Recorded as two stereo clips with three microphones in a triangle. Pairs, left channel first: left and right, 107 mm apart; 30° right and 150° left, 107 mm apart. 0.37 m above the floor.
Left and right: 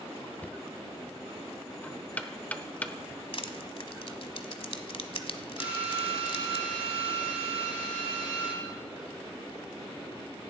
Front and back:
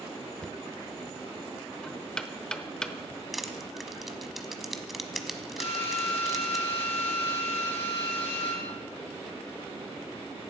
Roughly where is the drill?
Ahead.